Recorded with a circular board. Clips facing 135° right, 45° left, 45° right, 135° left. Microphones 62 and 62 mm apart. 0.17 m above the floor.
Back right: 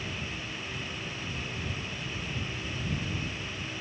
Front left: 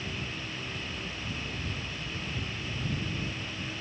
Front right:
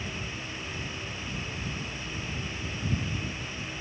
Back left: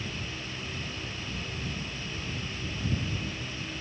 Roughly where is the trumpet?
No trumpet in this recording.